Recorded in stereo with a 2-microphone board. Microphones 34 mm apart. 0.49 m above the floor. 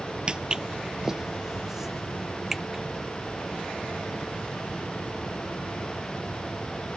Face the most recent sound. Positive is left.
turn(degrees=-10)  # may be behind; listen again after turning